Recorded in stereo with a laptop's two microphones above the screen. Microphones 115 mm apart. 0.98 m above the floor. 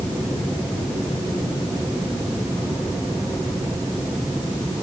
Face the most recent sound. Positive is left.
No sound to turn to.